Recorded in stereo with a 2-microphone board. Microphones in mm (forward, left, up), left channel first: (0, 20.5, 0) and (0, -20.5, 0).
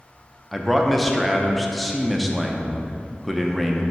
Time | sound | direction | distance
0.5 | a man speaking | centre (ahead or behind) | 0.6 m